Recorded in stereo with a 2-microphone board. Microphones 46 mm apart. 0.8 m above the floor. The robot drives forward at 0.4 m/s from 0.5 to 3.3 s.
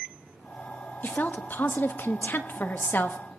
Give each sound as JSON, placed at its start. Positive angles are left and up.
{"t": 1.0, "sound": "a woman speaking", "side_deg": 40, "distance_m": 1.0}